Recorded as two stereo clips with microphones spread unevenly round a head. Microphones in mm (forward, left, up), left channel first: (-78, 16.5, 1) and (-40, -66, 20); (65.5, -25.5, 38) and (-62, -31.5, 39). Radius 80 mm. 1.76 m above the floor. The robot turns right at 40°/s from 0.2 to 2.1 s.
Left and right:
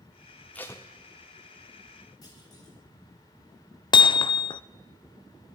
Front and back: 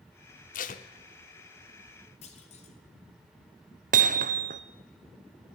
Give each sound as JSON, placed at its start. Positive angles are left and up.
{"t": 0.5, "sound": "tape being pulled", "azimuth_deg": 30, "distance_m": 0.9}
{"t": 2.2, "sound": "a clunk", "azimuth_deg": 50, "distance_m": 2.0}
{"t": 3.9, "sound": "hammering", "azimuth_deg": 150, "distance_m": 0.7}